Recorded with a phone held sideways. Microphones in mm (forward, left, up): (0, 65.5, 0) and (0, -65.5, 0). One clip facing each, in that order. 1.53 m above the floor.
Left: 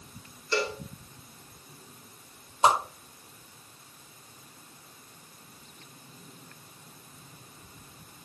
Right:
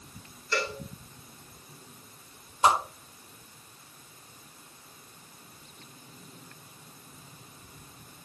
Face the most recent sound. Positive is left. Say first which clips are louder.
# left 1 dB
turn(degrees=25)  # may be behind; listen again after turning